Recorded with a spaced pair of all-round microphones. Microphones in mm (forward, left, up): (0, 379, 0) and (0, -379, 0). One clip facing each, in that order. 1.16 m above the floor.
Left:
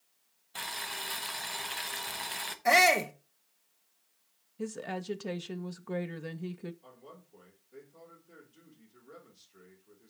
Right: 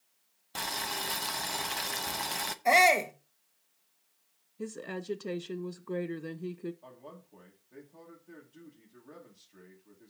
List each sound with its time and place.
0.6 s boiling: 70° right (ahead or behind), 0.9 m
2.6 s a shout: 45° left (ahead or behind), 1.2 m
4.6 s a woman speaking: 25° left (ahead or behind), 0.5 m
6.8 s a man speaking: 70° right (ahead or behind), 2.5 m